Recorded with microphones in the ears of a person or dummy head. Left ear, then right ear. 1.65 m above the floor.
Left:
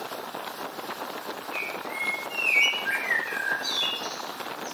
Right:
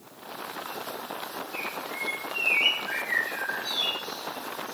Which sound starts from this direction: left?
A bird, at 1.5 s.